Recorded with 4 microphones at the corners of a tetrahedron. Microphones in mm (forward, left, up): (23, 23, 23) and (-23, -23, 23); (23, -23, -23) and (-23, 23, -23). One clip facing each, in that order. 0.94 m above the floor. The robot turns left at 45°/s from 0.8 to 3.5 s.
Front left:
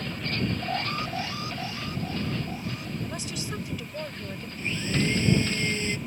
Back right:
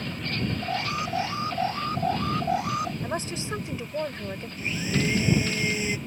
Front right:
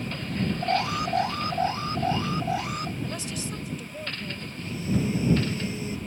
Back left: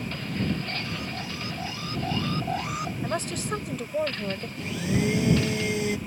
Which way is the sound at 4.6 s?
145° left.